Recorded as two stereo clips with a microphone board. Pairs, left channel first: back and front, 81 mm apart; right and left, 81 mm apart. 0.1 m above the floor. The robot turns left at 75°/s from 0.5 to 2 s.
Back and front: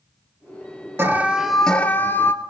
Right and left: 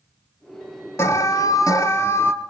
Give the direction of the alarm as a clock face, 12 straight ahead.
2 o'clock.